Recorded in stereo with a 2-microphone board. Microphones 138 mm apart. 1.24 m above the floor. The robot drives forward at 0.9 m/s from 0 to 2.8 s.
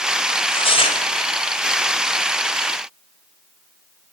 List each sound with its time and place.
0.3 s tearing paper: 40° left (ahead or behind), 4 m; by 1.0 s 50° left (ahead or behind), 3.5 m